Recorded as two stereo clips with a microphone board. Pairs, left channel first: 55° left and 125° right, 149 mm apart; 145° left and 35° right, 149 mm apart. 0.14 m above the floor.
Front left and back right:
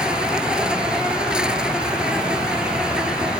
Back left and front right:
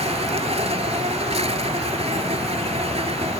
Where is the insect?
40° right.